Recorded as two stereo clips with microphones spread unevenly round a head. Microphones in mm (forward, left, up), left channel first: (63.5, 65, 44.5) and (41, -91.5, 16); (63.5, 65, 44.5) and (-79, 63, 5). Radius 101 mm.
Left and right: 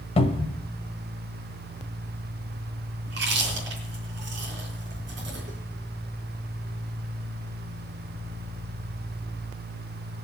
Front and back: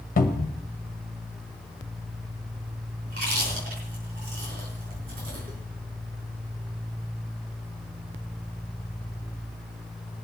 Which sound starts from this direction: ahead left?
A cupboard door, at 0.2 s.